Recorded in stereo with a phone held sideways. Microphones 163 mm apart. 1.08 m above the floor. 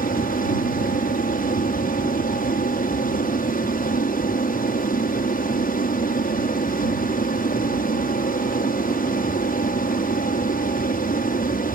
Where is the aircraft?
60° left (ahead or behind).